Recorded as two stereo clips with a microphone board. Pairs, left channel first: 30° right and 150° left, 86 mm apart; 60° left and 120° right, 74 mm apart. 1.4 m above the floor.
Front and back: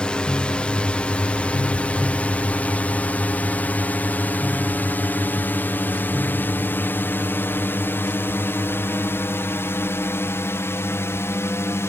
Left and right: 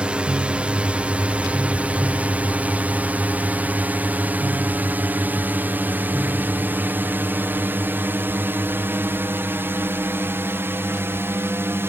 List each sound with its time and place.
0.0 s a drone: 80° right; by 11.9 s 75° right